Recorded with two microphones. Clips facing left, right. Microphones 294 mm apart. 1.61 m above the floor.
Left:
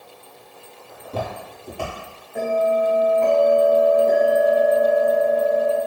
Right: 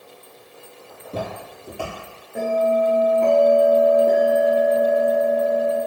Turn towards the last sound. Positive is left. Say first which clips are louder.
# even
turn(degrees=-45)  # may be behind; listen again after turning